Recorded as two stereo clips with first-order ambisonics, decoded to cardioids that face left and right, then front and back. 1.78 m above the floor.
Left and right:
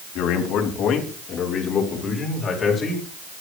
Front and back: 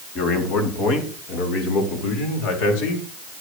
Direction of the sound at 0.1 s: 50° left.